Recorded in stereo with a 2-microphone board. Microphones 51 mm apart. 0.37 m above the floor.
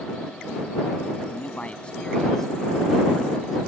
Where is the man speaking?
35° left (ahead or behind); by 3.6 s 5° right (ahead or behind).